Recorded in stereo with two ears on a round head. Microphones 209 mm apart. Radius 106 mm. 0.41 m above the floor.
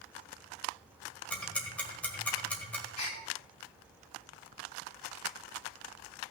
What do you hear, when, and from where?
1.3 s ticking: 5° left (ahead or behind), 1.6 m
3.0 s a gasp: 40° left (ahead or behind), 3 m